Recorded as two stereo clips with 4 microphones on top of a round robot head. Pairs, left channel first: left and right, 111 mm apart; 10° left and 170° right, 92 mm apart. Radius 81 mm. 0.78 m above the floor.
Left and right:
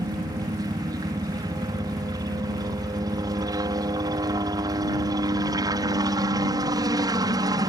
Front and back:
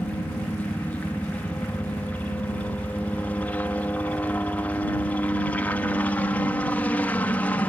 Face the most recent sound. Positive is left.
turn(degrees=-55)